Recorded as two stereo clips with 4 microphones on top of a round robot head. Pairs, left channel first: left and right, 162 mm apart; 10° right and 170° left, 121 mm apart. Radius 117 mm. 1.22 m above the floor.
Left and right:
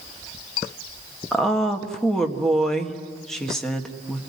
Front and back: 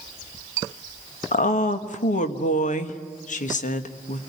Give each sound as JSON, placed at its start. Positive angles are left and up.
{"t": 1.3, "sound": "a woman speaking", "azimuth_deg": 5, "distance_m": 1.8}